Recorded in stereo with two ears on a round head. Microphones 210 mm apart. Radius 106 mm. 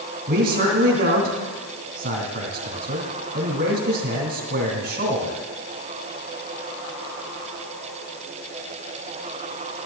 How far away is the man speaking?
About 3 m.